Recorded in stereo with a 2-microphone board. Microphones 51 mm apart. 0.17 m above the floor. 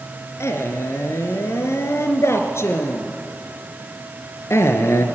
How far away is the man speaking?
About 2.5 m.